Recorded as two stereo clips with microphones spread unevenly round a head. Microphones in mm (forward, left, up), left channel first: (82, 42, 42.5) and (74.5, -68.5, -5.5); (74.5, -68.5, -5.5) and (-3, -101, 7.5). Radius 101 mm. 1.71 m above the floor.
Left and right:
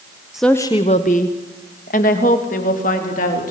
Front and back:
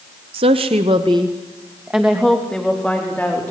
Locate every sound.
0.3 s a woman speaking: straight behind, 1.1 m; by 3.5 s 105° left, 5 m